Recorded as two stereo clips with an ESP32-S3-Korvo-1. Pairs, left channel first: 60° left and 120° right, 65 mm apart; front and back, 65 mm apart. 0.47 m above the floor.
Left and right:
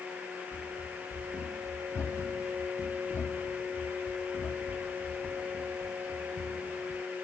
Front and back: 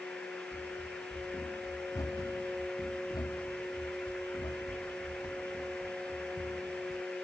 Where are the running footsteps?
25° left; by 7.0 s 30° right.